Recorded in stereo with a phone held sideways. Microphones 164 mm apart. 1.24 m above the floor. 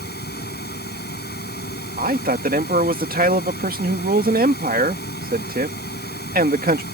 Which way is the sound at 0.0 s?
90° left.